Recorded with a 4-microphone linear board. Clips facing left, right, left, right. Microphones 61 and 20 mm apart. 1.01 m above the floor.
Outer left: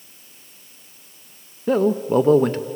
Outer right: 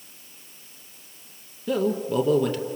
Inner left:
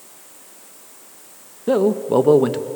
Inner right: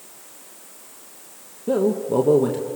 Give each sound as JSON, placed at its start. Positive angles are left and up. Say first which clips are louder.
{"t": 1.7, "sound": "a man speaking", "louder": "outer left 6 dB, inner left 3 dB", "side_deg": 40, "distance_m": 0.9}